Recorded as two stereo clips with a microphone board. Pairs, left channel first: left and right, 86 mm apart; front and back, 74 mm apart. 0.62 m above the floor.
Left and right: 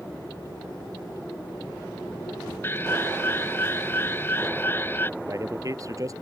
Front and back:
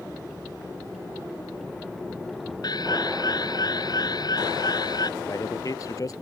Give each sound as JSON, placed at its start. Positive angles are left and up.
{"t": 2.6, "sound": "an alarm", "azimuth_deg": 25}
{"t": 5.2, "sound": "a man speaking", "azimuth_deg": -40}